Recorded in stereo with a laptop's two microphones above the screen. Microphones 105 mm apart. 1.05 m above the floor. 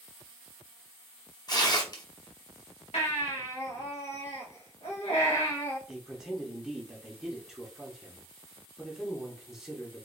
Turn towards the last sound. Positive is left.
turn(degrees=-5)  # may be behind; listen again after turning